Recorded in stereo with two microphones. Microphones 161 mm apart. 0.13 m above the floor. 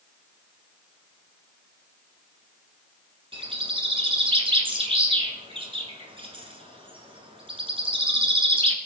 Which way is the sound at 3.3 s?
35° right (ahead or behind).